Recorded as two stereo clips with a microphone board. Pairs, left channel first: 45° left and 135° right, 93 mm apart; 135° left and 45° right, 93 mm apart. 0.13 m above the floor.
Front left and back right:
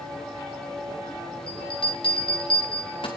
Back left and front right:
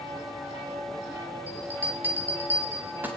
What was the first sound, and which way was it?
A bell, 25° left.